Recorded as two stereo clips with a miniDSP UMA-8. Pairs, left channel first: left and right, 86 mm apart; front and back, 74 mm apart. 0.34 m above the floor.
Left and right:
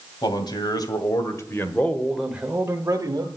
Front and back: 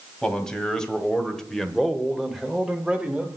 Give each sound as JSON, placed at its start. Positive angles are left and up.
{"t": 0.2, "sound": "a man speaking", "azimuth_deg": 80, "distance_m": 2.0}